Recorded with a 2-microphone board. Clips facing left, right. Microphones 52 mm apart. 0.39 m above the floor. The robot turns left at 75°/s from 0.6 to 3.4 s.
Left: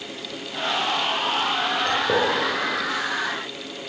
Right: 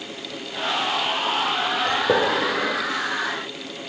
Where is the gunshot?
5° right (ahead or behind), 4.5 m; by 2.8 s 70° right (ahead or behind), 4.5 m.